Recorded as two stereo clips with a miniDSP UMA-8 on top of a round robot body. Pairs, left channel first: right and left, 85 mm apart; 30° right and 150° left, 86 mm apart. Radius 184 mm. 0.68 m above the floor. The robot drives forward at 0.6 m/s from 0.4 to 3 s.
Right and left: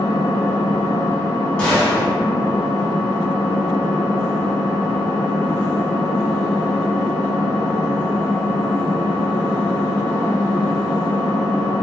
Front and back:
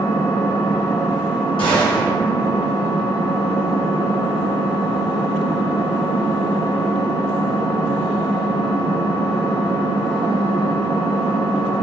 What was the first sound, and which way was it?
An engine running, 45° left.